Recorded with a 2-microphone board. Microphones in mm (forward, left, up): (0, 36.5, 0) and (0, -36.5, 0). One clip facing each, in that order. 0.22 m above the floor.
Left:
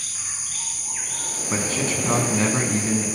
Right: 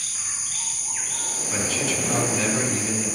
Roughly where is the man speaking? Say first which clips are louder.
Left 2 dB; left.